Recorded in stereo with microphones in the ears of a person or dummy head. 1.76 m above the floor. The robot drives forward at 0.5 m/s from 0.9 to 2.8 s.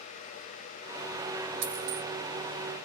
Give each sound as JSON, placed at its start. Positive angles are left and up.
{"t": 1.6, "sound": "a dropped coin", "side_deg": -60, "distance_m": 2.5}